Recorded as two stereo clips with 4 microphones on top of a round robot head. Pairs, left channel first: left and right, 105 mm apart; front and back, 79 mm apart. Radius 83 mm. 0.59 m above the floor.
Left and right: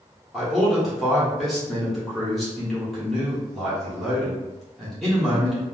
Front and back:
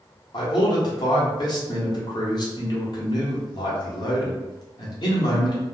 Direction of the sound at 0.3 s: Straight ahead.